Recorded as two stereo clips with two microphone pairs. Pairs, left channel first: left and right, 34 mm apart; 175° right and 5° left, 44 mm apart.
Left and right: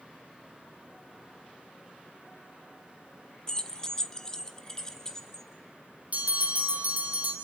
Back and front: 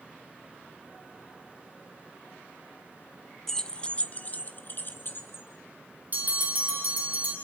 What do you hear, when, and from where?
3.5 s keys jangling: 120° left, 0.7 m; by 5.5 s 160° left, 1.7 m
6.1 s a bell: 45° right, 3 m